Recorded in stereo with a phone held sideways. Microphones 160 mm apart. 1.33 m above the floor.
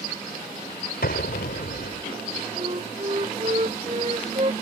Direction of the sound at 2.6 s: 40° right (ahead or behind).